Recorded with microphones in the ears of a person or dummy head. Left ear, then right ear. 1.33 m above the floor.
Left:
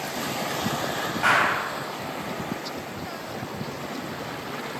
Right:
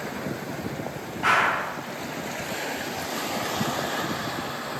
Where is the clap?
20° left (ahead or behind), 8 m.